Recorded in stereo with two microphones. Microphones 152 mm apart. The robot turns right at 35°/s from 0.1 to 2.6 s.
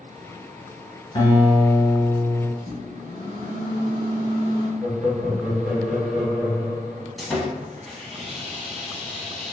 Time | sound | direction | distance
1.1 | a guitar | 150° left | 1.2 m
2.6 | a microwave | 40° left (ahead or behind) | 1.2 m
4.8 | laughter | 10° right (ahead or behind) | 1.9 m
7.2 | sawing | centre (ahead or behind) | 0.6 m